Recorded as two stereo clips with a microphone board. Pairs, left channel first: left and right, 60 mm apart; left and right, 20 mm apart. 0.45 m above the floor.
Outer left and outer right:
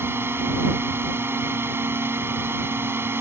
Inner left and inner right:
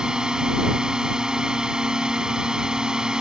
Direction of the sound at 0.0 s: 40° right (ahead or behind).